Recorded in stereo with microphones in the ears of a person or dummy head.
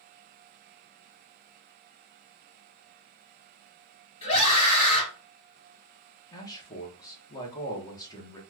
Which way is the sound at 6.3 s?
20° left (ahead or behind).